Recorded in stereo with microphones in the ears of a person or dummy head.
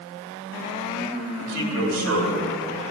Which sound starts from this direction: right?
A man speaking, at 1.4 s.